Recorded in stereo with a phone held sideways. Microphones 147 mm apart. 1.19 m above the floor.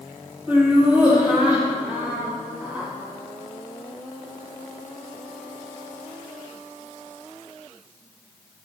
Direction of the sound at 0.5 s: 10° right (ahead or behind).